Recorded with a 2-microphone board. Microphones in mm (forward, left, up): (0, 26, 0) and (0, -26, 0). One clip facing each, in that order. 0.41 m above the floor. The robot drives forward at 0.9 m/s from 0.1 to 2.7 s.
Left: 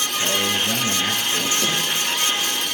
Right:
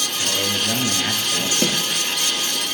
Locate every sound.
0.2 s a man speaking: 10° right (ahead or behind), 3 m; by 1.5 s 15° right (ahead or behind), 1.7 m
1.6 s a snare drum: 50° right (ahead or behind), 5 m